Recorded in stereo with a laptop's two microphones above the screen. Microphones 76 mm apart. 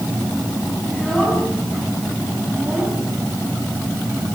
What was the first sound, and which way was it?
A child speaking, 5° left (ahead or behind).